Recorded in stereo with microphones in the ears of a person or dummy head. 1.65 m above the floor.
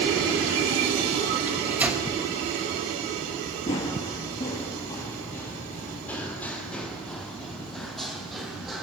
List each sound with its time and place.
1.5 s a microwave: 10° right (ahead or behind), 2.5 m
3.7 s running footsteps: 20° left (ahead or behind), 1.7 m; by 8.8 s 5° left (ahead or behind), 3.5 m